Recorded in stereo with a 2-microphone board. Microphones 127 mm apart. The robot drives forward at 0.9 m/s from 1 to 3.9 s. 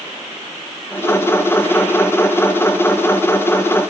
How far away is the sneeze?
No sneeze in this recording.